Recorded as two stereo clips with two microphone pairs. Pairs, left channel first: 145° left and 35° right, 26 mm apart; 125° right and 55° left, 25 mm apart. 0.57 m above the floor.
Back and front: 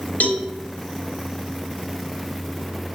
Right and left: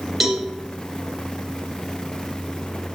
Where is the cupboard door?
No cupboard door in this recording.